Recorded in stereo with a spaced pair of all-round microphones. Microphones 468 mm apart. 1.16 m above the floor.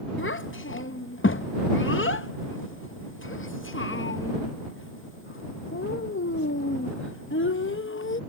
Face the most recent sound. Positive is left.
turn(degrees=25)  # may be behind; listen again after turning